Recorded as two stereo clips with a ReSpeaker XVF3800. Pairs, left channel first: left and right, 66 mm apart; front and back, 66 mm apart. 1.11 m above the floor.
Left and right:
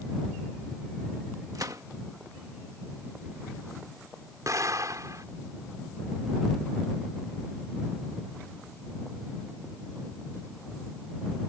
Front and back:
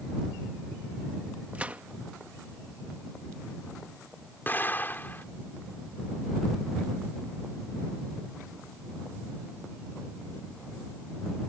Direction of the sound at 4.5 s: 60° right.